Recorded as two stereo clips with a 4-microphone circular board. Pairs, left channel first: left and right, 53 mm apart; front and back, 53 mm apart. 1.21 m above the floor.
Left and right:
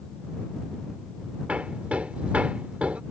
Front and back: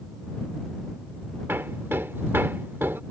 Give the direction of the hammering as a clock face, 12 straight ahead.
5 o'clock.